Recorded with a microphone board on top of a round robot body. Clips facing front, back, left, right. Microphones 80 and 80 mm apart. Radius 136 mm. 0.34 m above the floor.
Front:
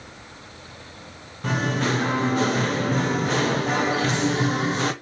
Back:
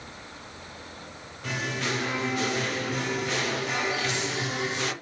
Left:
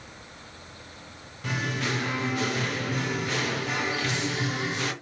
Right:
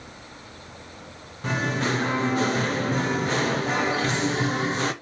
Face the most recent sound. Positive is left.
turn(degrees=-40)